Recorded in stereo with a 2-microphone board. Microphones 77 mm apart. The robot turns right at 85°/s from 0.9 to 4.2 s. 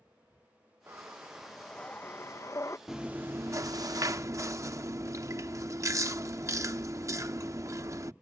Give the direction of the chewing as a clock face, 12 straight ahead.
6 o'clock.